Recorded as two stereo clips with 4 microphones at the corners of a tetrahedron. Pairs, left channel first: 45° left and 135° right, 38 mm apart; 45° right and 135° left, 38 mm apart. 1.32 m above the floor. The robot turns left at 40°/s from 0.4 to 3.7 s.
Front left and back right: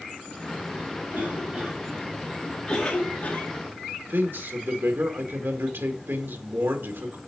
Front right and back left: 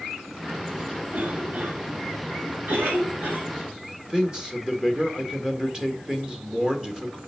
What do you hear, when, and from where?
1.1 s a cough: straight behind, 3 m; by 3.5 s 85° left, 3 m
3.9 s a man speaking: 150° right, 2.0 m